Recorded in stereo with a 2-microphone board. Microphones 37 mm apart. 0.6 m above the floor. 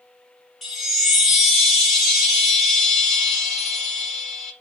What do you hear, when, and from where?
0.6 s a chime: 5° right (ahead or behind), 0.9 m